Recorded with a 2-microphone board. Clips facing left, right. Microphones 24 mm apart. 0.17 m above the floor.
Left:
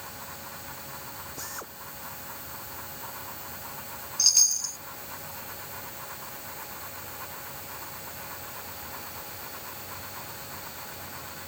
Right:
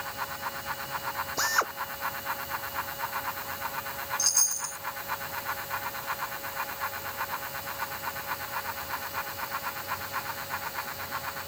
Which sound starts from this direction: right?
A drill, at 1.4 s.